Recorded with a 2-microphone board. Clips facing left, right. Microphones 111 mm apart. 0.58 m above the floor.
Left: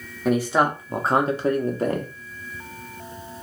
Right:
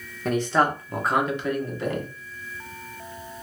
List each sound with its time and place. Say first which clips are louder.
0.2 s a man speaking: left 2 dB; 5° left (ahead or behind), 1.0 m; by 2.1 s 40° left (ahead or behind), 1.0 m